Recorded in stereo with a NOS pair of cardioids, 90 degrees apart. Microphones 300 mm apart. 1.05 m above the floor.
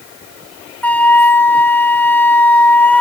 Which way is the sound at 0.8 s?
5° left.